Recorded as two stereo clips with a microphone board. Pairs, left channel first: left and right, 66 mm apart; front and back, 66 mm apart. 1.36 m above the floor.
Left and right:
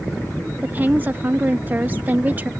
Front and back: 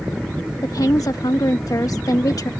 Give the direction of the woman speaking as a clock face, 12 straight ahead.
1 o'clock.